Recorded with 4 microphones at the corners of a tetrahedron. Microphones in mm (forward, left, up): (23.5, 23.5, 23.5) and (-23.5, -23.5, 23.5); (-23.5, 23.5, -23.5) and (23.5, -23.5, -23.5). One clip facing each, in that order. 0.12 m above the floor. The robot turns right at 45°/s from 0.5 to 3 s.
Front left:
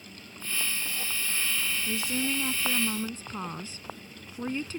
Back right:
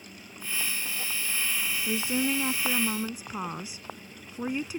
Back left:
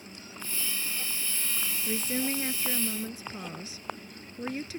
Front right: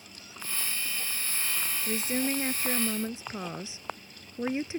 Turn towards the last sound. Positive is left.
turn(degrees=-75)